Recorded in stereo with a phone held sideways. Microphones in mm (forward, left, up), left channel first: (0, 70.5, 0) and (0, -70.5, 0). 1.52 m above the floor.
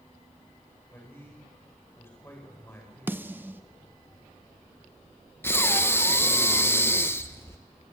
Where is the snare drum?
15° right (ahead or behind), 0.6 m.